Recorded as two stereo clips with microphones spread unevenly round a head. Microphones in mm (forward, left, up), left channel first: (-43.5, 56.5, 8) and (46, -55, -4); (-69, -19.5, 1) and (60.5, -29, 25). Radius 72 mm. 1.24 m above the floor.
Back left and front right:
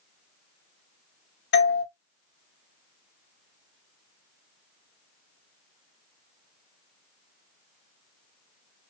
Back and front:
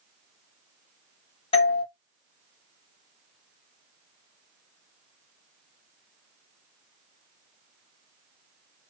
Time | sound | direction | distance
1.5 | a doorbell | 130° left | 2.5 m